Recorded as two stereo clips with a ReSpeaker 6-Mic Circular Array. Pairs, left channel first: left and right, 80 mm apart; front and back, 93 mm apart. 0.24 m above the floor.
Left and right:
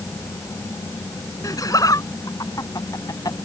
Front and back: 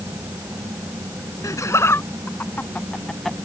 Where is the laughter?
50° left; by 3.4 s 90° left.